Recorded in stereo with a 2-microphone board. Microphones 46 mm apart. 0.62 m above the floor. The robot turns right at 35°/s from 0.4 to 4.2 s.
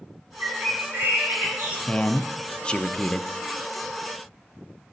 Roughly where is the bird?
Right.